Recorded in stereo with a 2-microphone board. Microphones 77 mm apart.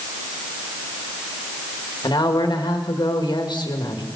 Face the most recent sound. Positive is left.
turn(degrees=75)  # may be behind; listen again after turning